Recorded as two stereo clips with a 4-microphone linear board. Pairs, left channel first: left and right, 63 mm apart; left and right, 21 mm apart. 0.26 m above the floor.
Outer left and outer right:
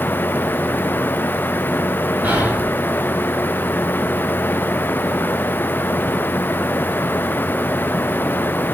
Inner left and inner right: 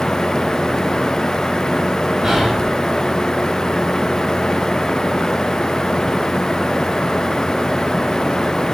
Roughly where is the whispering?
Right.